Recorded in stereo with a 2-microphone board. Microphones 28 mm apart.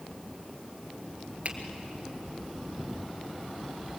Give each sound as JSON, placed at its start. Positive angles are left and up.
{"t": 1.4, "sound": "a finger snap", "side_deg": -50, "distance_m": 2.5}